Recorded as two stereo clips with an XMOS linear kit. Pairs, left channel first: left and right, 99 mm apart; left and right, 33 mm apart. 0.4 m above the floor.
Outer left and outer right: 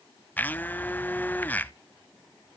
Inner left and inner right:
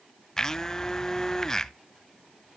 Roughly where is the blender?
Centre.